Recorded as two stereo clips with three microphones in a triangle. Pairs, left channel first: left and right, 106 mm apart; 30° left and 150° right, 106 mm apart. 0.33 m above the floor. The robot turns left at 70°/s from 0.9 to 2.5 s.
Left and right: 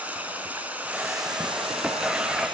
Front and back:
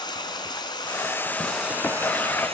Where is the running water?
15° right, 3.5 m; by 2.5 s 130° right, 3.5 m.